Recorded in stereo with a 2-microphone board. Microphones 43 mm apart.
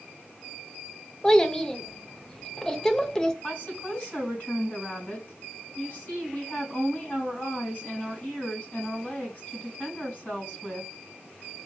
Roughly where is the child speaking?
Centre.